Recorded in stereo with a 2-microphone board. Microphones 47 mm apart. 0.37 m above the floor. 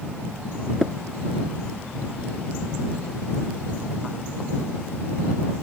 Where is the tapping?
Centre (ahead or behind).